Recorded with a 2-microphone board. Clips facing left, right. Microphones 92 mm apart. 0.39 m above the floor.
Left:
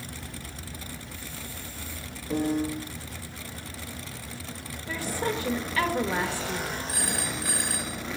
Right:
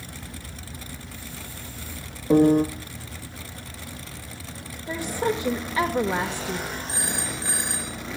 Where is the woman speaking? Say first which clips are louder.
Right 4 dB; 20° right (ahead or behind), 1.0 m.